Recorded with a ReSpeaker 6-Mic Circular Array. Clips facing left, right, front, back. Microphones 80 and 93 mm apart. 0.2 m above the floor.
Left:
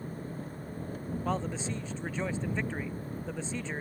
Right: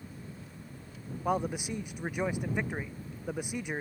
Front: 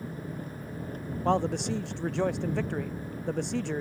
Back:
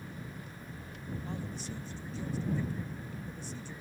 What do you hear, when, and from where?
0.0 s an engine running: 45° left
1.2 s a man speaking: 15° right